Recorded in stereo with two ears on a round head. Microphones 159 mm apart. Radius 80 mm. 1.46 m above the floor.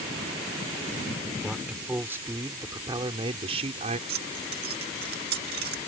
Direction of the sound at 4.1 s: 60° right (ahead or behind).